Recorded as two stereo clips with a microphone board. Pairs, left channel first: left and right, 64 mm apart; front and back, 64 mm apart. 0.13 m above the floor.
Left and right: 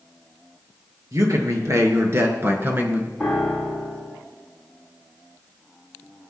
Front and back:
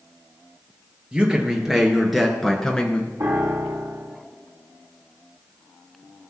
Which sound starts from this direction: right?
A man speaking, at 1.1 s.